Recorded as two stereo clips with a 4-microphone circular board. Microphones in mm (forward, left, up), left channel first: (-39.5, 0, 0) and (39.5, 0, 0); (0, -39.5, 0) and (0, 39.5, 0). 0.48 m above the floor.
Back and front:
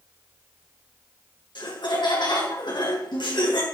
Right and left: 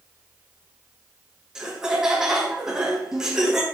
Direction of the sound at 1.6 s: 170° left.